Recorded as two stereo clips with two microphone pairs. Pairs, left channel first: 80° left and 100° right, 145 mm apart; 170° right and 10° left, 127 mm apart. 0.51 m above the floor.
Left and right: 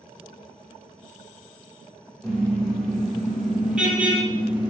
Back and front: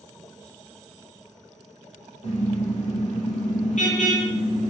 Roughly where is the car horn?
Behind.